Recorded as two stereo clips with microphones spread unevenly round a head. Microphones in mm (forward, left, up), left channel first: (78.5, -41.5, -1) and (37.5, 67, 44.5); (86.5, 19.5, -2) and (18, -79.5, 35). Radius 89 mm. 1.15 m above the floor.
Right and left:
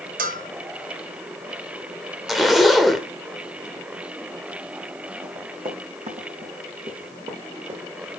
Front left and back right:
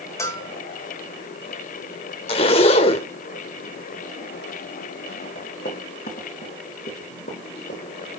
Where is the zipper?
70° left, 0.9 m.